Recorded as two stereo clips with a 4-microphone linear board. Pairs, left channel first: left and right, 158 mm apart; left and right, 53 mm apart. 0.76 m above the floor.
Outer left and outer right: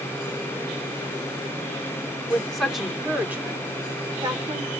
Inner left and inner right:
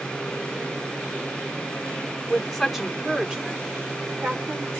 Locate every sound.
2.3 s a woman speaking: 5° left (ahead or behind), 2.5 m; by 4.7 s 30° right (ahead or behind), 3.5 m